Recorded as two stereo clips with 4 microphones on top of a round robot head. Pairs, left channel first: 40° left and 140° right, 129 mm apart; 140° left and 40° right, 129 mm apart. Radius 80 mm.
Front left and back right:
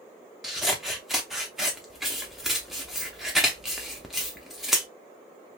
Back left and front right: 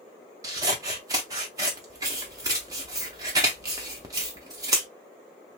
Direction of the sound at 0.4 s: 55° right.